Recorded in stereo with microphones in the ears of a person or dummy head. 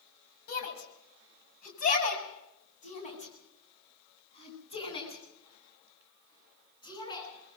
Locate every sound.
0.5 s a shout: 55° left (ahead or behind), 6.5 m; by 7.2 s 20° left (ahead or behind), 12.5 m